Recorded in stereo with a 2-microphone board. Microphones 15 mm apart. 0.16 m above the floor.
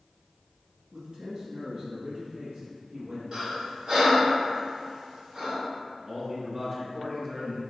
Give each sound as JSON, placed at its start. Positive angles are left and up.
{"t": 0.9, "sound": "a man speaking", "side_deg": -50, "distance_m": 1.6}
{"t": 3.3, "sound": "breathing", "side_deg": -45, "distance_m": 1.8}
{"t": 6.0, "sound": "a man speaking", "side_deg": -15, "distance_m": 1.4}